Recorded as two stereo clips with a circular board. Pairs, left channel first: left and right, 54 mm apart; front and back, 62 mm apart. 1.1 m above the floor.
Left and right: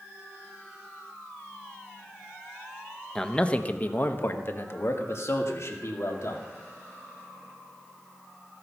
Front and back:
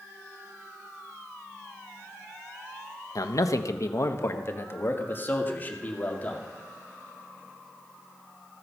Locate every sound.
3.1 s a man speaking: 10° left, 0.8 m; by 6.4 s 65° left, 2 m